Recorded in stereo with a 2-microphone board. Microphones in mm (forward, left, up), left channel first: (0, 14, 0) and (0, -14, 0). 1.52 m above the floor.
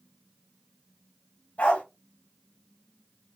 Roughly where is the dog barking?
Left.